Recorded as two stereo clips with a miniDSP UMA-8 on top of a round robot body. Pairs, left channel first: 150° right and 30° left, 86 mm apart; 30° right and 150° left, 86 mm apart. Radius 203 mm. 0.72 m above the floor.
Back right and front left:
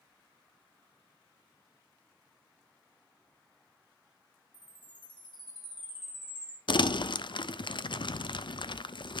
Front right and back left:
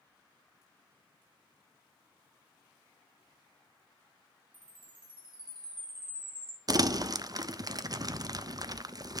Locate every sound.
4.5 s a chime: straight behind, 3.5 m
6.7 s crumpling: 170° right, 0.5 m